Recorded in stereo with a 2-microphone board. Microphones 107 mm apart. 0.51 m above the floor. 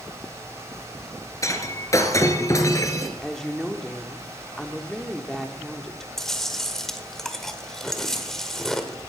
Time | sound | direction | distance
1.4 | breaking glass | 30° left (ahead or behind) | 1.6 m
3.2 | a woman speaking | 5° left (ahead or behind) | 1.0 m
6.2 | chewing | 5° left (ahead or behind) | 1.2 m